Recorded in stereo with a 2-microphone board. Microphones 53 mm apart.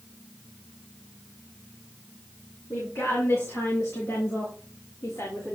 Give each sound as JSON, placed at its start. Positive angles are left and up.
{"t": 2.7, "sound": "a woman speaking", "side_deg": 55, "distance_m": 4.0}